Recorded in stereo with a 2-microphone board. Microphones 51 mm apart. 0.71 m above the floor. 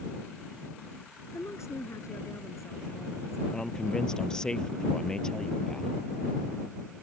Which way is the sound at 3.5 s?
15° left (ahead or behind).